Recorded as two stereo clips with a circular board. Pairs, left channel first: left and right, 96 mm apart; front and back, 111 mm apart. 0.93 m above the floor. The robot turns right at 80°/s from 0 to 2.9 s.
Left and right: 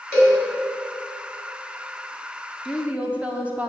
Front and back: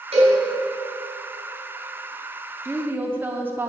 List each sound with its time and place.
0.1 s a cowbell: 155° left, 3 m; by 0.4 s straight behind, 3 m
2.6 s a woman speaking: 160° right, 0.8 m; by 3.7 s 140° right, 0.8 m